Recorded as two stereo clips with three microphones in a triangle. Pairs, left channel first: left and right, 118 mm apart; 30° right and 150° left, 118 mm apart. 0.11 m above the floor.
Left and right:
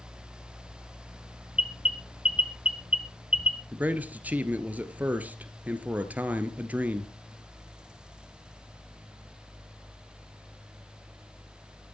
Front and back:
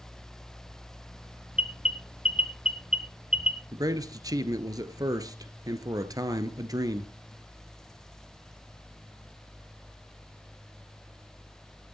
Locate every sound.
1.6 s an alarm: 75° left, 2 m
3.7 s a man speaking: 160° right, 1.6 m